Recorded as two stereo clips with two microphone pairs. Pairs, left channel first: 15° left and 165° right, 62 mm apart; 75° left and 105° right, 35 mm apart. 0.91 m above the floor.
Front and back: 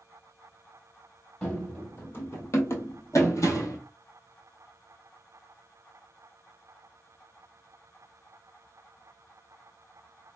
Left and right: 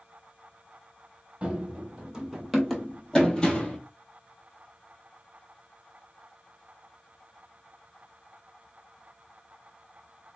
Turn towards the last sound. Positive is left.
turn(degrees=25)